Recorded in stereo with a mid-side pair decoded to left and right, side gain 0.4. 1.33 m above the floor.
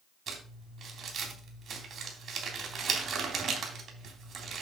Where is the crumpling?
65° right, 3.5 m.